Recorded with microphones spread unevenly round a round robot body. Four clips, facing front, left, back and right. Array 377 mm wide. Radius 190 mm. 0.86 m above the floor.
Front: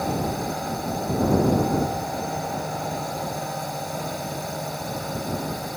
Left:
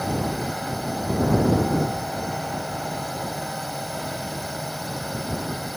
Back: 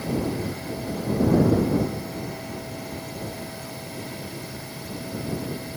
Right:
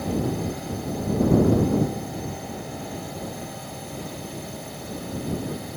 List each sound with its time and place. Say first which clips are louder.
0.0 s a drone: even, front 1 dB; 35° left